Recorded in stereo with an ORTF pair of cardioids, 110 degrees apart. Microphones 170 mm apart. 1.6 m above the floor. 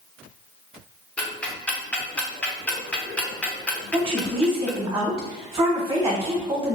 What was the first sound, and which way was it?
Ticking, 5° left.